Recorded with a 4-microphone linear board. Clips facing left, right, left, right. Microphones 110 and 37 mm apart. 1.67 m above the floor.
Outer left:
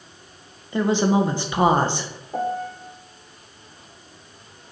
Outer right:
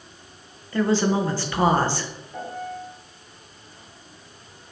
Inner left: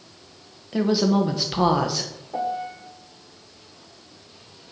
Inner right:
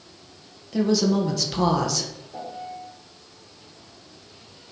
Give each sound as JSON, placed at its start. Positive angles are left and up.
{"t": 0.7, "sound": "a woman speaking", "side_deg": 20, "distance_m": 1.3}
{"t": 2.3, "sound": "a piano", "side_deg": 50, "distance_m": 0.9}